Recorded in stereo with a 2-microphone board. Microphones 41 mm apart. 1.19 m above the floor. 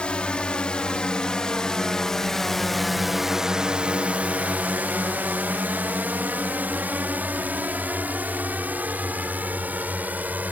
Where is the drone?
30° left (ahead or behind); by 10.5 s 45° right (ahead or behind).